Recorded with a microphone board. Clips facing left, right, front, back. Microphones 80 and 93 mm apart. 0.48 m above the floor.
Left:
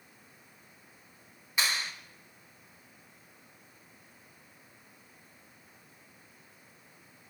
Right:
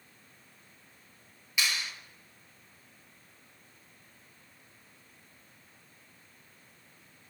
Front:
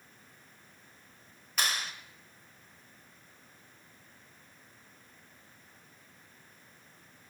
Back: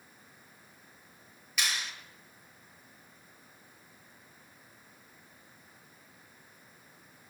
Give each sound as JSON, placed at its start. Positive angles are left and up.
{"t": 1.6, "sound": "a clap", "azimuth_deg": 40, "distance_m": 1.6}